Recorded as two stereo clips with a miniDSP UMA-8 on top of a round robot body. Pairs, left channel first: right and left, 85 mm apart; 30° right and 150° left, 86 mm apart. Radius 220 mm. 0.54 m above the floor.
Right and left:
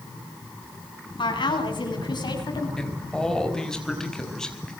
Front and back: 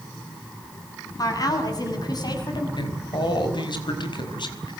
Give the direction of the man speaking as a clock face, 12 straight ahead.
12 o'clock.